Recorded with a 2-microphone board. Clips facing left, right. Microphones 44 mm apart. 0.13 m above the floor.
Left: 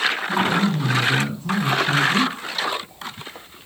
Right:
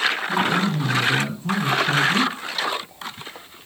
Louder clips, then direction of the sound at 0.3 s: Left 1 dB; 5° right (ahead or behind).